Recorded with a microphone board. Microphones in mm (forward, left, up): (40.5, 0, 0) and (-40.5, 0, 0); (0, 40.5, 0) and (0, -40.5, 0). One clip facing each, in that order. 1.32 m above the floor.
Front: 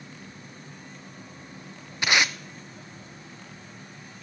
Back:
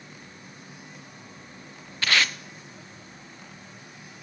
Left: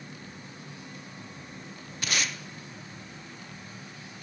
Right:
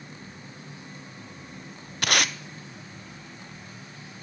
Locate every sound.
2.0 s tape being pulled: 70° right, 0.5 m